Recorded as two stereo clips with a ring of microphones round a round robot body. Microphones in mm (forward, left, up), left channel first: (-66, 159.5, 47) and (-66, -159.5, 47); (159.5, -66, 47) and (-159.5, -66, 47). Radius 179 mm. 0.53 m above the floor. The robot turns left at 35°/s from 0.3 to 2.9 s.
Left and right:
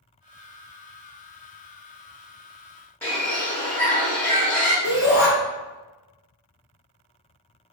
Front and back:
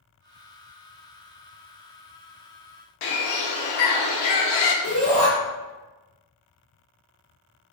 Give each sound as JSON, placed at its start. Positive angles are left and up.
{"t": 3.0, "sound": "a bird", "azimuth_deg": 5, "distance_m": 0.6}
{"t": 4.8, "sound": "a shout", "azimuth_deg": -25, "distance_m": 1.2}